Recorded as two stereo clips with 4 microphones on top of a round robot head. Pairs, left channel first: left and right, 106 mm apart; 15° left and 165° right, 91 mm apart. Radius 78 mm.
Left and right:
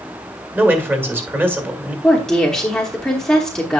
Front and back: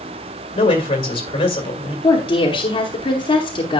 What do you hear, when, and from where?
0.6 s a man speaking: 20° right, 1.9 m
2.0 s a woman speaking: 5° left, 1.0 m